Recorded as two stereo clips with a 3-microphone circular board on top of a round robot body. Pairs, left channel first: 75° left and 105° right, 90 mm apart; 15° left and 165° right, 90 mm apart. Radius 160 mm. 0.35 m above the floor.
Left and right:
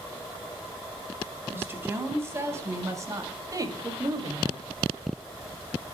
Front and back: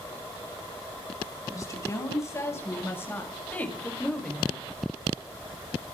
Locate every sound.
1.5 s a woman speaking: 40° right, 5 m; by 4.7 s 75° right, 2.5 m